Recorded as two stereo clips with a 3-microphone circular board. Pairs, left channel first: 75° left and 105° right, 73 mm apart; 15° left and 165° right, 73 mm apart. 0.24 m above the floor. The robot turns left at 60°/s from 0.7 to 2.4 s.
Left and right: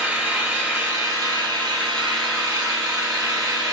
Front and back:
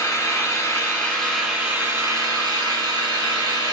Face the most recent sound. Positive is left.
turn(degrees=-145)